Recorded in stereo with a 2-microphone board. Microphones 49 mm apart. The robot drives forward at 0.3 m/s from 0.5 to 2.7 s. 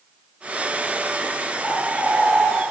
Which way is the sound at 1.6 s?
50° left (ahead or behind).